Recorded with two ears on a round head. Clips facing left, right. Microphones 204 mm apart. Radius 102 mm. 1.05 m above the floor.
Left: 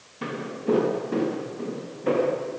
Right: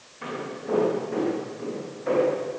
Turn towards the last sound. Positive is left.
turn(degrees=50)  # may be behind; listen again after turning